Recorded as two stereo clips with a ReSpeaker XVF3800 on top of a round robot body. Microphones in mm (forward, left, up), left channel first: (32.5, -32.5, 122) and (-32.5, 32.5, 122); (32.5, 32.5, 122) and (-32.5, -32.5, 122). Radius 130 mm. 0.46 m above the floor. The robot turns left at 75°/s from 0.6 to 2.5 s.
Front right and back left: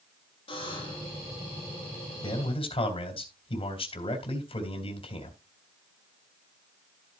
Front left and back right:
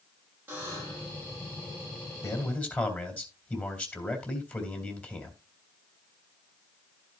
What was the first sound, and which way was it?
A buzzer, 65° right.